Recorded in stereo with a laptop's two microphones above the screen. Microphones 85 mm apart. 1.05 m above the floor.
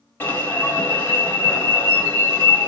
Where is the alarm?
20° left (ahead or behind), 2.5 m.